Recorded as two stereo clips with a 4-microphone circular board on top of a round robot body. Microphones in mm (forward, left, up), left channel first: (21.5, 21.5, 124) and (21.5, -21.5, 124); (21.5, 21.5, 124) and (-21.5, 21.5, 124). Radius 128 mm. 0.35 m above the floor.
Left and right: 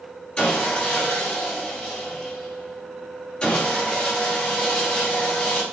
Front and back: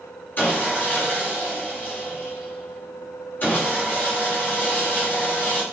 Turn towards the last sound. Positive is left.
turn(degrees=30)